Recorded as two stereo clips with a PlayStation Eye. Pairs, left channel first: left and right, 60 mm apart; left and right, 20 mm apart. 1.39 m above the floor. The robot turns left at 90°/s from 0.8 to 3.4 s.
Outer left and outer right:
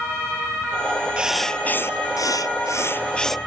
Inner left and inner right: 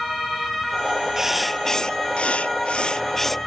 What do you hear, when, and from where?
1.2 s writing: 160° right; by 3.4 s straight ahead